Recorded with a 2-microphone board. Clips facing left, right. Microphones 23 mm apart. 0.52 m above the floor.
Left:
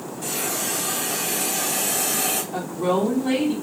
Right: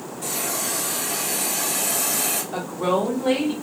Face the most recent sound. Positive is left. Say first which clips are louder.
# right 1 dB
turn(degrees=-25)  # may be behind; listen again after turning